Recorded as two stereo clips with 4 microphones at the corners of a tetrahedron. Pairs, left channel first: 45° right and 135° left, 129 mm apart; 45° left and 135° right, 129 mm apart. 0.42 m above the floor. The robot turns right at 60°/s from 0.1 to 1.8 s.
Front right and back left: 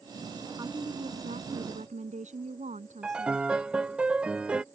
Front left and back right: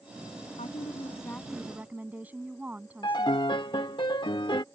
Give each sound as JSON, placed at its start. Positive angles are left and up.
{"t": 0.6, "sound": "a woman speaking", "azimuth_deg": 75}
{"t": 3.0, "sound": "a piano", "azimuth_deg": 60}